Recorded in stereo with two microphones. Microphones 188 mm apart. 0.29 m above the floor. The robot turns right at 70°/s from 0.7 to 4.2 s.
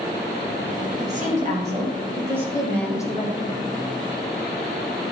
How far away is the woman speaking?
About 1.9 m.